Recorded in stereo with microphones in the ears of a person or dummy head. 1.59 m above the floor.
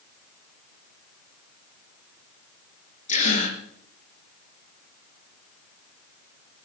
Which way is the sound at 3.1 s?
40° left (ahead or behind).